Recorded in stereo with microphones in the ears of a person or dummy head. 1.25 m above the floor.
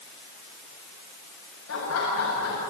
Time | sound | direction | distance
1.7 | laughter | 90° left | 7 m